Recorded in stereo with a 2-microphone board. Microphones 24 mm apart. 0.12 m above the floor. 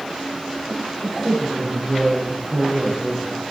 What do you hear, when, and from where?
1.0 s a woman speaking: 5° right (ahead or behind), 7 m